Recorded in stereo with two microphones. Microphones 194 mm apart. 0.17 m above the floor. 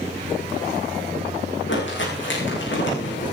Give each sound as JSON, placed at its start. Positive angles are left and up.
{"t": 1.7, "sound": "crumpling", "side_deg": 75, "distance_m": 9.5}